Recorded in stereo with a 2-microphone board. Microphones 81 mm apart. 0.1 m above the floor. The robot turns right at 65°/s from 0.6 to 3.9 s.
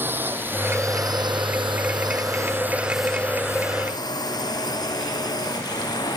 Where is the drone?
25° right (ahead or behind); by 6.2 s 55° left (ahead or behind).